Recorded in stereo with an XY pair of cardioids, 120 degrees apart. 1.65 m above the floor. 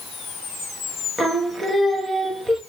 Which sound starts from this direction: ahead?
Singing, at 1.2 s.